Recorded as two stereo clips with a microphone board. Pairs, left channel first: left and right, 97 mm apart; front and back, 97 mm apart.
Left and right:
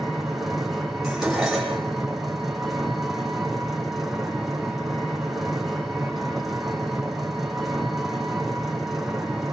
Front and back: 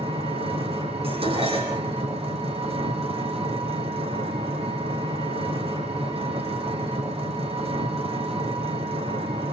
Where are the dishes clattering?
175° right, 9.5 m.